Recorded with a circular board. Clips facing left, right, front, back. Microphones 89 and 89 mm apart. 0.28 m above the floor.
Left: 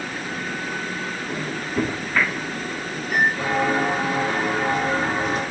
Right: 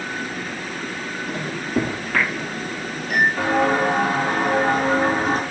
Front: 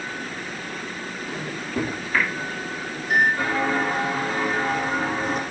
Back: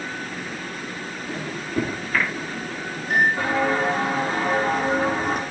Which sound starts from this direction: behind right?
Footsteps, at 3.4 s.